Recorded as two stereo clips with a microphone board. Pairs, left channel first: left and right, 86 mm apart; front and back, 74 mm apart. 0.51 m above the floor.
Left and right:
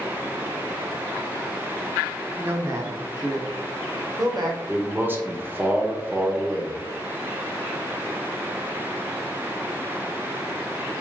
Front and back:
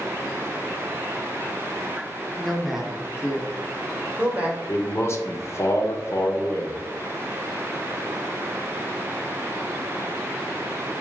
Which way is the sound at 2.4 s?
80° right.